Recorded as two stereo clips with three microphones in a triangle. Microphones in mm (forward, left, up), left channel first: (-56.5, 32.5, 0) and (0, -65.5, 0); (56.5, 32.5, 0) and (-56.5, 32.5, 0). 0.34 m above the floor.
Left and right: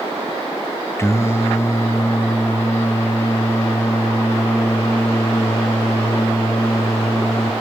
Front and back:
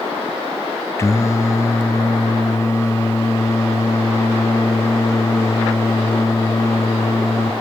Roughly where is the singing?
Ahead left.